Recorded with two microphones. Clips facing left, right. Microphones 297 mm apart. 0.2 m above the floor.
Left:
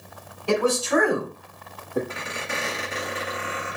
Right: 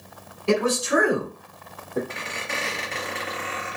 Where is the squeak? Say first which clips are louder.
Left 1 dB; 5° left (ahead or behind), 1.3 m.